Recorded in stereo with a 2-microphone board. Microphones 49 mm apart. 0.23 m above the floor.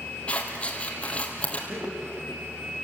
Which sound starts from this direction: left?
Scissors, at 0.3 s.